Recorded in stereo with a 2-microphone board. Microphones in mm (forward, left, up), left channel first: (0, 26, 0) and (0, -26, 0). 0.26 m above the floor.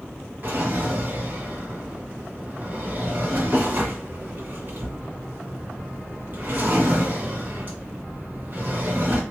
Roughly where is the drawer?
Right.